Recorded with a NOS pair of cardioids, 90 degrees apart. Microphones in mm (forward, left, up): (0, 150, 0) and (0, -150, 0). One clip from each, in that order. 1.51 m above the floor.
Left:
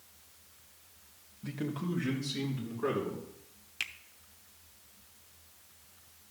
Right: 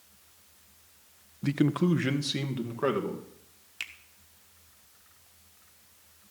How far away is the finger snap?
About 0.8 m.